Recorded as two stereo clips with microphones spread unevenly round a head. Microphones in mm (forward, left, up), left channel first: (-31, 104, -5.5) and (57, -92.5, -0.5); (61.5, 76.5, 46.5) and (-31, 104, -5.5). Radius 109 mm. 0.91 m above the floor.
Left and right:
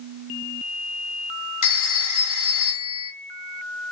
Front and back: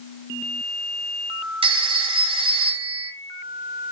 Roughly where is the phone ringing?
Behind left.